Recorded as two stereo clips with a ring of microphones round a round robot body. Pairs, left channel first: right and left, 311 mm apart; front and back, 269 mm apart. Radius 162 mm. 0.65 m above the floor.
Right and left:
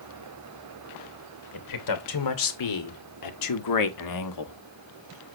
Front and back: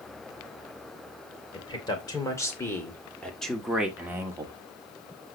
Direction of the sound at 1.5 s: 75° right.